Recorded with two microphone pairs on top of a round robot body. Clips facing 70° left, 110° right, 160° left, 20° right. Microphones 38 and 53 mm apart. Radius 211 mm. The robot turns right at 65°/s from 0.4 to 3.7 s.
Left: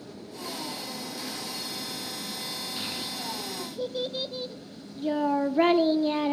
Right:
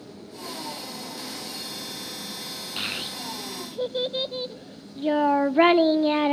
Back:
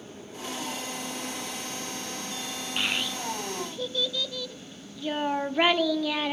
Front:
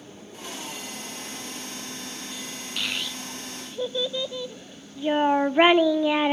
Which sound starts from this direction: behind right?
A child speaking, at 2.8 s.